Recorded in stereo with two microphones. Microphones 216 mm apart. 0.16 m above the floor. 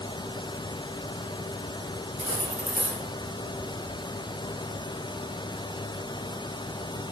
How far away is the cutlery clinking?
About 2 m.